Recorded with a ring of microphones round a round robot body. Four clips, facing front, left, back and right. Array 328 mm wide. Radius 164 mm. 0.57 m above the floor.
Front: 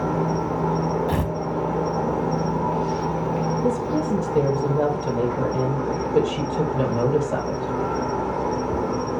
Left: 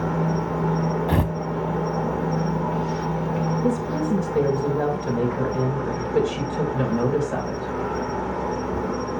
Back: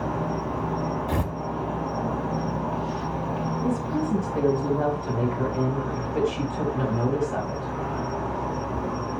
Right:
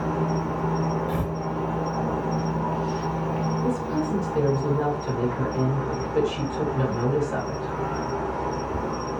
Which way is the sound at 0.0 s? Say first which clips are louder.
Left 2 dB, front 5 dB; 20° left.